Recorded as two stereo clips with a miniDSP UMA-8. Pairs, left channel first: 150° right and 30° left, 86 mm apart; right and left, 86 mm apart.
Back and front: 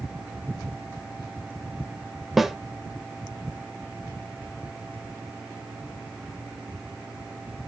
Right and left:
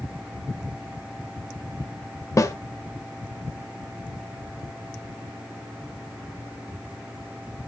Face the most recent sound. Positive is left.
turn(degrees=-55)